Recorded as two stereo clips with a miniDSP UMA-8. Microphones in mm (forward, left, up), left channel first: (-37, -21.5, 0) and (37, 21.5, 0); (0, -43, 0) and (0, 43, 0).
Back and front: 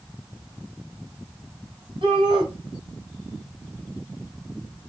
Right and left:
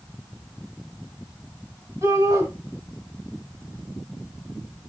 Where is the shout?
35° left, 5.5 m.